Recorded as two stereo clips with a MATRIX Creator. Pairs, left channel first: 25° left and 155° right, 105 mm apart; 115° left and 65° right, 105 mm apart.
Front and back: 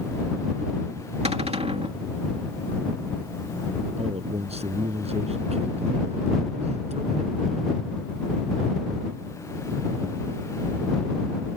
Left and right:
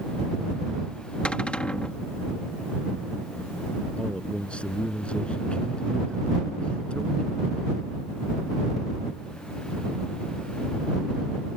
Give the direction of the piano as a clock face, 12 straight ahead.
No piano in this recording.